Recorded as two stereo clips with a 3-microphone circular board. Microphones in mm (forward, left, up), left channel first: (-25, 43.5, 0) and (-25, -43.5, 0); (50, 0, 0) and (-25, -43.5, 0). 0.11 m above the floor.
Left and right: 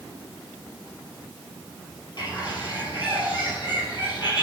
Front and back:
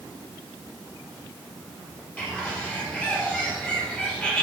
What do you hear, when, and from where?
2.2 s a bird: 105° left, 3.5 m